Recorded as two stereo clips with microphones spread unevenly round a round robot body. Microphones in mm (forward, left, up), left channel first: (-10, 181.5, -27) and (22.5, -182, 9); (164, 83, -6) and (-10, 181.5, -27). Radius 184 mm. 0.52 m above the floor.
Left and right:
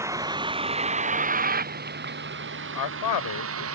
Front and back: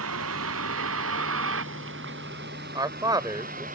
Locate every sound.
0.0 s a vehicle: 165° right; by 3.8 s 140° right
2.8 s a man speaking: 85° left